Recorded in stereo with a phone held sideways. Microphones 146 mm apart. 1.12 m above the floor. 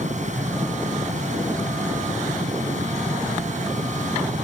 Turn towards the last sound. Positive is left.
turn(degrees=-55)  # may be behind; listen again after turning